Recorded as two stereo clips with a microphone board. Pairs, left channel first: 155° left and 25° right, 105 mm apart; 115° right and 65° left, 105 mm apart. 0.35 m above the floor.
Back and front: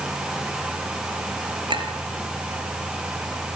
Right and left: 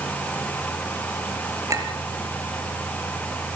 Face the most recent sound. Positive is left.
turn(degrees=10)